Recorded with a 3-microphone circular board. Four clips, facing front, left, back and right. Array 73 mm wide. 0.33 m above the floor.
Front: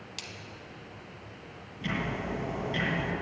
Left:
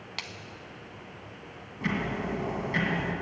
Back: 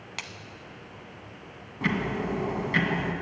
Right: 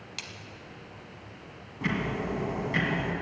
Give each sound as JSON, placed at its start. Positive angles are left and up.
{"t": 0.2, "sound": "a splash", "azimuth_deg": 145, "distance_m": 0.6}
{"t": 1.8, "sound": "ticking", "azimuth_deg": -175, "distance_m": 2.0}